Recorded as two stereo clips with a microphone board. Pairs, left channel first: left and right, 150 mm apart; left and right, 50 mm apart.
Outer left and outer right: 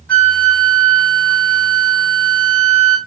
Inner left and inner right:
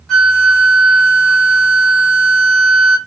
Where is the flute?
10° left (ahead or behind), 2.0 m.